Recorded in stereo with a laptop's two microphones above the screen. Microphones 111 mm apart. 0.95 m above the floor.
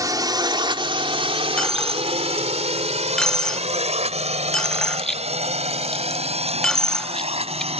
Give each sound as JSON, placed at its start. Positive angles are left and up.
{"t": 0.0, "sound": "a drone", "side_deg": -35}
{"t": 1.6, "sound": "a dropped coin", "side_deg": 5}